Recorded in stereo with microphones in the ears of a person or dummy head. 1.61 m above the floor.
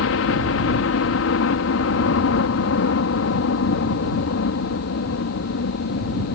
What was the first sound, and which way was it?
A helicopter, 65° left (ahead or behind).